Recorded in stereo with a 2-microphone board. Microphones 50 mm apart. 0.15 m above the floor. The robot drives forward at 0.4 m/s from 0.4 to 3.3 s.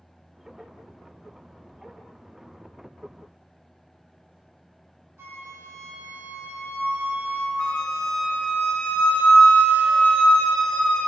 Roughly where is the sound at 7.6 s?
Left.